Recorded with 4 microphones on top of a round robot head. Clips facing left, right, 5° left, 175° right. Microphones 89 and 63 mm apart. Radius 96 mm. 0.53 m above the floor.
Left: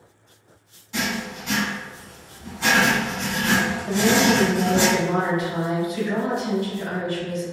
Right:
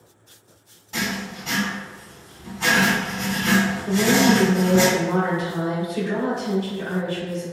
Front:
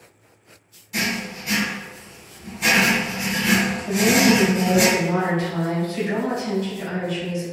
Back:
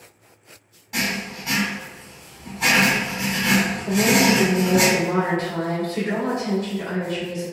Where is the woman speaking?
140° right, 1.9 m.